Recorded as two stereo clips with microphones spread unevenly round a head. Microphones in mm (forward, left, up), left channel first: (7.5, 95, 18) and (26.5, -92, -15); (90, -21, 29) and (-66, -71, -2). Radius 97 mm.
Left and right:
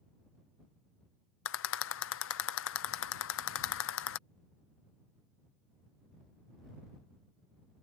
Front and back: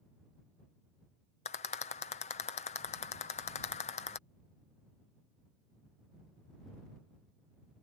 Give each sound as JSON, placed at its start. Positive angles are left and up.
{"t": 1.4, "sound": "a rattle", "azimuth_deg": 75}